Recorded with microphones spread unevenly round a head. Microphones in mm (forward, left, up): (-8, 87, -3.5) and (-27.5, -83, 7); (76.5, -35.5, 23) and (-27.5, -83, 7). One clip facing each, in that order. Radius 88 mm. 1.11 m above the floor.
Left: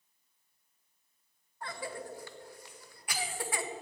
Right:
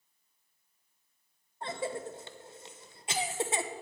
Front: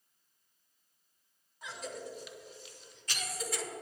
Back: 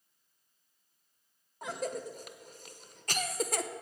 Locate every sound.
1.6 s a cough: 160° right, 0.8 m